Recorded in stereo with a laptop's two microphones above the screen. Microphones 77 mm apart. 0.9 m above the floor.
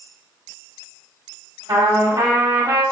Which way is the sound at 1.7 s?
70° right (ahead or behind).